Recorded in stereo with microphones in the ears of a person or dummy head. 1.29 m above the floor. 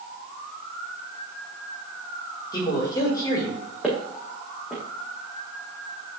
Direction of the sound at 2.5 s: 20° left (ahead or behind).